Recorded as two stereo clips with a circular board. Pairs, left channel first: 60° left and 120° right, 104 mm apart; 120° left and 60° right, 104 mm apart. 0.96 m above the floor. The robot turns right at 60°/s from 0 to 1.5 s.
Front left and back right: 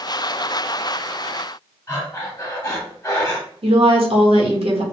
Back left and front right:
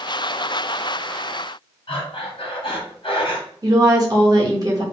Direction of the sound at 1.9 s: 110° left.